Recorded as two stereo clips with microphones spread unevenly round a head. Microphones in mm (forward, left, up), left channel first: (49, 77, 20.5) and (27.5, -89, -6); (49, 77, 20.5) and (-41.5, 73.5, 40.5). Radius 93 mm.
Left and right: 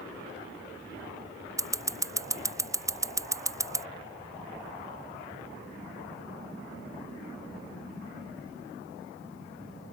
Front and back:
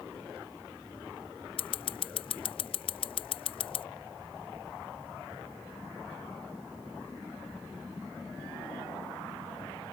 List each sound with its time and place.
1.6 s scissors: 30° right